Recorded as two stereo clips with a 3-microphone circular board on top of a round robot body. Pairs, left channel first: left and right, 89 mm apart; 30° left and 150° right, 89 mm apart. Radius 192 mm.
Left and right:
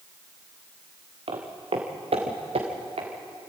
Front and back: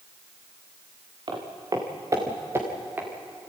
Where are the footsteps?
110° right, 3 m; by 3.1 s 80° right, 4 m.